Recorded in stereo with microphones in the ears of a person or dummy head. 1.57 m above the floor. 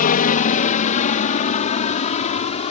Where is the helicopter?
40° left (ahead or behind); by 2.7 s 35° left (ahead or behind).